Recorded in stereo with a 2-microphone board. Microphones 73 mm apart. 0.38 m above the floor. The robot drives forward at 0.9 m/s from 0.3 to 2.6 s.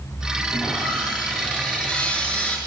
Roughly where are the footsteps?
No footsteps in this recording.